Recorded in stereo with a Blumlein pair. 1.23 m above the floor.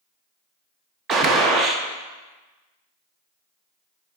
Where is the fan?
I don't hear a fan.